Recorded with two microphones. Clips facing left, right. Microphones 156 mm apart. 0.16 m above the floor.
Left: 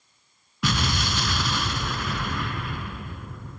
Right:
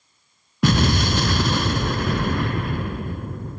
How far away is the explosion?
About 0.7 m.